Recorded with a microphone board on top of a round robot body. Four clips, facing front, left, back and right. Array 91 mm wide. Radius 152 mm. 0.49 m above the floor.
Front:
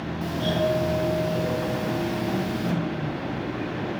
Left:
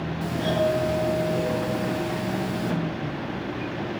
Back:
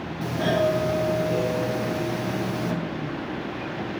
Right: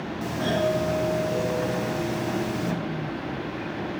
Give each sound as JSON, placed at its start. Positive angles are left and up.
{"t": 0.2, "sound": "a doorbell", "azimuth_deg": -165, "distance_m": 3.0}